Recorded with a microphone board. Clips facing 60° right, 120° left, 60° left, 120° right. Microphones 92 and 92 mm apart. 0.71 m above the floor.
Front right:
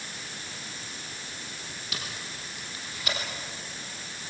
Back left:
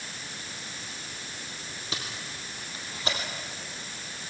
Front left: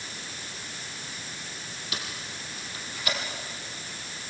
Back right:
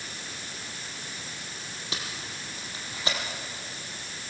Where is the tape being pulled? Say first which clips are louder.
Back left 2 dB, even; straight behind, 5 m.